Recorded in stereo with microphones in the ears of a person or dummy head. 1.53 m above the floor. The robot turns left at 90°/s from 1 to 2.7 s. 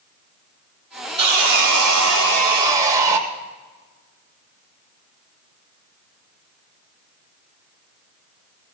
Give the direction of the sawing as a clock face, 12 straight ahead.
1 o'clock.